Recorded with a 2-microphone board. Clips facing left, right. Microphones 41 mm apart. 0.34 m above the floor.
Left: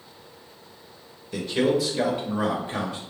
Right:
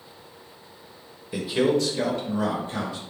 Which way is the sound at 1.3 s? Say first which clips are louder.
Right 1 dB; 15° right (ahead or behind).